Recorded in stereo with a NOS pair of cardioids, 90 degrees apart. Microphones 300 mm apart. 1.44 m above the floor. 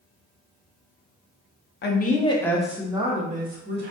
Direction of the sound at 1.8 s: 40° left.